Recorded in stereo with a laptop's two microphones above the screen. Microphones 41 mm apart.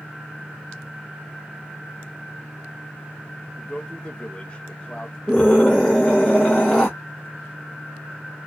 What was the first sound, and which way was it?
A man speaking, 20° left (ahead or behind).